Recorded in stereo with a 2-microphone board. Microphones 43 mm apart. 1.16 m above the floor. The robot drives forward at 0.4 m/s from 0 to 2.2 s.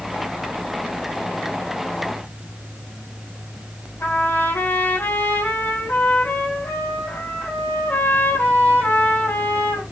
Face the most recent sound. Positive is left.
turn(degrees=55)  # may be behind; listen again after turning